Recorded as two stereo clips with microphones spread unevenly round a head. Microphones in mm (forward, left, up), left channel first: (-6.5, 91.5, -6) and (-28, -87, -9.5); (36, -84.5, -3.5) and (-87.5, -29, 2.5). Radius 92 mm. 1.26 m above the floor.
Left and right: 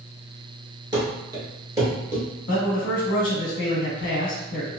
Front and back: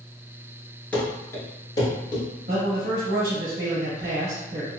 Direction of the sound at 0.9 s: 95° right.